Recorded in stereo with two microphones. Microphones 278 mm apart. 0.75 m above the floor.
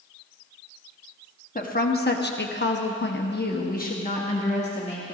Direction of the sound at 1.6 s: 30° left (ahead or behind).